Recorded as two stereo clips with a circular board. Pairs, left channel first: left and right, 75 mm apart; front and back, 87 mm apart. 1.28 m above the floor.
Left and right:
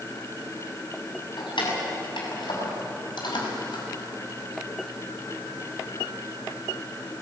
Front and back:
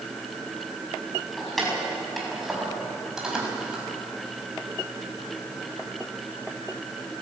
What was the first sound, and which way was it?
Keys jangling, 90° left.